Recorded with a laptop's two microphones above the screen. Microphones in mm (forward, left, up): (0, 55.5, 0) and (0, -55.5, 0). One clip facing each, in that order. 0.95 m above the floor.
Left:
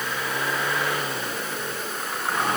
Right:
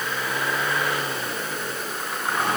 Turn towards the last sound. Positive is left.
No sound to turn to.